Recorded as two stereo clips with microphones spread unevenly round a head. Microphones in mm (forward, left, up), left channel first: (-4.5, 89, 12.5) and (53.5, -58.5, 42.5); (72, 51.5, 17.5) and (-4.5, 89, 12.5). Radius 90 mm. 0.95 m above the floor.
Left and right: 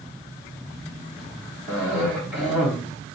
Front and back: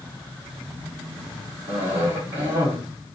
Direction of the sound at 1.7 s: 160° right.